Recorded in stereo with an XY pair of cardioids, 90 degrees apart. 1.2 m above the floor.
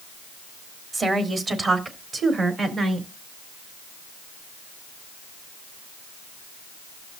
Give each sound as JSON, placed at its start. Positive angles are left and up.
{"t": 0.9, "sound": "a woman speaking", "azimuth_deg": -40, "distance_m": 2.5}